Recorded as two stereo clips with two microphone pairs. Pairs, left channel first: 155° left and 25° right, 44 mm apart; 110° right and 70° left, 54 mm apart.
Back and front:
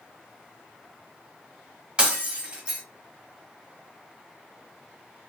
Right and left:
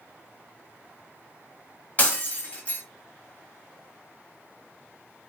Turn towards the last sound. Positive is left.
turn(degrees=-70)